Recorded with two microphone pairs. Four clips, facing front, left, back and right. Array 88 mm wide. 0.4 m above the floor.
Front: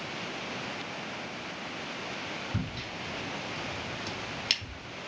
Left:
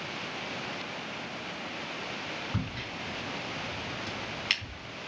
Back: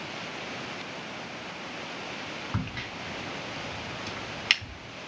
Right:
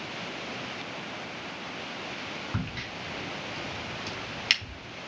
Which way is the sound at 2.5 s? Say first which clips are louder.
Right 1 dB, back 1 dB; 165° right.